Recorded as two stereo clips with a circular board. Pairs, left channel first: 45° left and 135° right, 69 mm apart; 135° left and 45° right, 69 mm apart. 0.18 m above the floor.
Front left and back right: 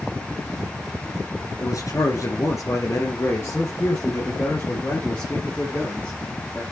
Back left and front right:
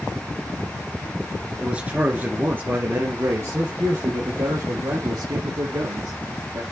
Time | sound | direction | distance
1.6 | a man speaking | 25° left | 2.5 m